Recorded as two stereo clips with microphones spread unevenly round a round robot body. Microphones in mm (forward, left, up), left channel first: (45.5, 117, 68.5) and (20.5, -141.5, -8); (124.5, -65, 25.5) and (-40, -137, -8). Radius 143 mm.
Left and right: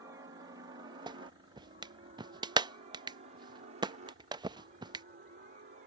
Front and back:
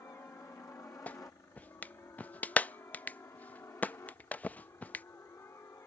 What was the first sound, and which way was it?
A helicopter, 50° right.